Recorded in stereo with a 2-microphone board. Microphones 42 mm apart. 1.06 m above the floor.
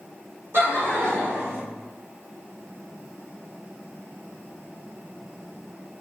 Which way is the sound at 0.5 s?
55° right (ahead or behind).